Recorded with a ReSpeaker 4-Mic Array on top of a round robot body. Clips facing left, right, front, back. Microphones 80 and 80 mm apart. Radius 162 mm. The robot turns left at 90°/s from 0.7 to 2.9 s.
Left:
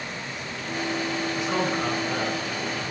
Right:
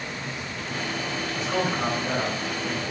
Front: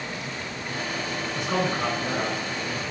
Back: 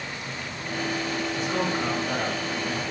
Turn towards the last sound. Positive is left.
turn(degrees=-115)